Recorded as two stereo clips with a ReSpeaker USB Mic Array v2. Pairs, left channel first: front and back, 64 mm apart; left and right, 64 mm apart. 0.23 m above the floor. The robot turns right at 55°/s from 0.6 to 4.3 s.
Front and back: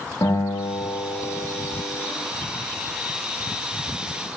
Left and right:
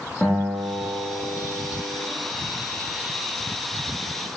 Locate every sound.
0.2 s a guitar: 5° left, 7.5 m; by 2.1 s 90° left, 7.5 m